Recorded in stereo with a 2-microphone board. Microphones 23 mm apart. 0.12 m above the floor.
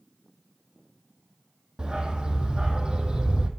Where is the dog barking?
35° right (ahead or behind), 1.3 m.